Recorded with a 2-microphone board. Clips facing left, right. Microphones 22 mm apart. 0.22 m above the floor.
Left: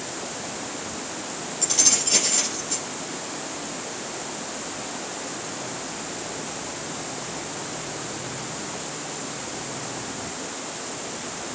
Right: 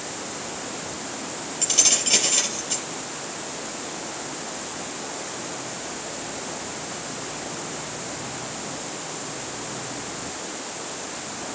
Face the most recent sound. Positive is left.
turn(degrees=-25)  # may be behind; listen again after turning